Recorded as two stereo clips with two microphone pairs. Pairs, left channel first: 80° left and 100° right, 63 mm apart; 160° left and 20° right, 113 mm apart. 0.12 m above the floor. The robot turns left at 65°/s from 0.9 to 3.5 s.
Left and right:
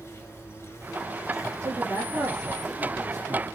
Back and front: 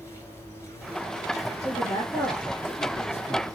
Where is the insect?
100° left, 1.6 m; by 3.5 s 65° right, 1.6 m.